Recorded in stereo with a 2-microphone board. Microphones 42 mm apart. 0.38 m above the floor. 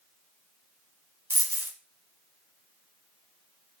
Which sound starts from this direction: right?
A dropped coin, at 1.3 s.